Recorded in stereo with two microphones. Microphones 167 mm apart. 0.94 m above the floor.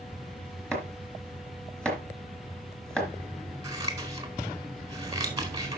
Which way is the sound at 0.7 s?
5° left (ahead or behind).